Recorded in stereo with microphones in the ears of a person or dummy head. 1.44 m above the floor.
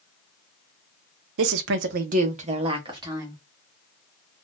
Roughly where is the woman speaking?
Right.